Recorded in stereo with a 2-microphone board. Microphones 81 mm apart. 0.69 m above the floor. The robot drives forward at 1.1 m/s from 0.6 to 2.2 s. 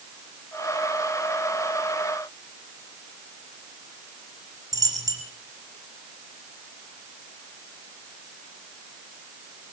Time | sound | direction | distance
4.7 | a dropped coin | 50° right (ahead or behind) | 6 m